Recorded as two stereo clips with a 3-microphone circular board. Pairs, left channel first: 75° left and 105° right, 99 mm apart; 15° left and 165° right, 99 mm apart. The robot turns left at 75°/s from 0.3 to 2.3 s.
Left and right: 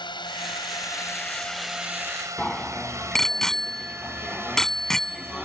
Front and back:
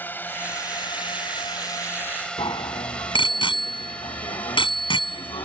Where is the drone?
80° left; by 5.5 s 50° right.